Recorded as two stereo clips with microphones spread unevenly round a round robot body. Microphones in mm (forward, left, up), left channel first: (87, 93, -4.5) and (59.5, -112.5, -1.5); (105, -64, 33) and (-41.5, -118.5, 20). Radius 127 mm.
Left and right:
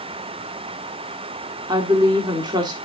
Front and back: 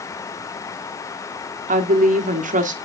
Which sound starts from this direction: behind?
A woman speaking, at 1.7 s.